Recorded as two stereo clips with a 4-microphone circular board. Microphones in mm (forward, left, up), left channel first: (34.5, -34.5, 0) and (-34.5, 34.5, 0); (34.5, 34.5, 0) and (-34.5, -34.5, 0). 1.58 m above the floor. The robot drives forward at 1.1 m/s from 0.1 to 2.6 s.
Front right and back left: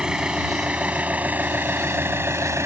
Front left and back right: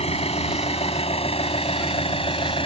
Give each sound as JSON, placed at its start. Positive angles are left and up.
{"t": 0.0, "sound": "an engine running", "azimuth_deg": 50}